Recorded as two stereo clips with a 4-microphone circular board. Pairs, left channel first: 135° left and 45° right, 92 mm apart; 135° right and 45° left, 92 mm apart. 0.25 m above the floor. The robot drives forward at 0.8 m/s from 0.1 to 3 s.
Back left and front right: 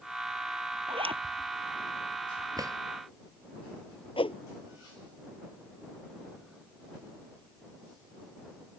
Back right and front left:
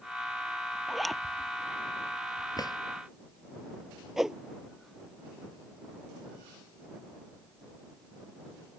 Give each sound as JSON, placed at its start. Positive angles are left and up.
{"t": 0.9, "sound": "a zipper", "azimuth_deg": -45}
{"t": 2.6, "sound": "a drawer", "azimuth_deg": -90}
{"t": 4.2, "sound": "a whoosh", "azimuth_deg": 130}